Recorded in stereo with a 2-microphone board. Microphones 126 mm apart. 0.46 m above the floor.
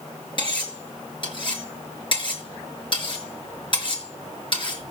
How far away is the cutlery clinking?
About 5 m.